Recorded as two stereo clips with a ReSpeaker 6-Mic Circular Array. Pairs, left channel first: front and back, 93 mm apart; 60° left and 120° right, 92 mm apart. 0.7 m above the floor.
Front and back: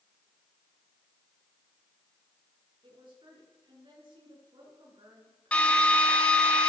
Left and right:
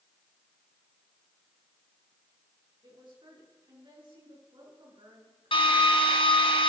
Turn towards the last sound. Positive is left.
turn(degrees=75)